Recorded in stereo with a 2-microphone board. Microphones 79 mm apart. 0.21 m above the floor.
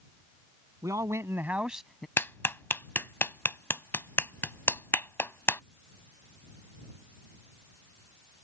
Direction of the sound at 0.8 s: 50° right (ahead or behind).